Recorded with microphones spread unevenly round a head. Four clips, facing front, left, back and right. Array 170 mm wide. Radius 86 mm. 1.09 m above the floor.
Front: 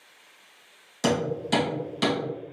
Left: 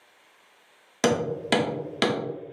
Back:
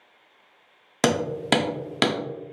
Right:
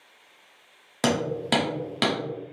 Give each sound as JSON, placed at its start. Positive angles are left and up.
{"t": 1.0, "sound": "hammering", "azimuth_deg": 180, "distance_m": 0.7}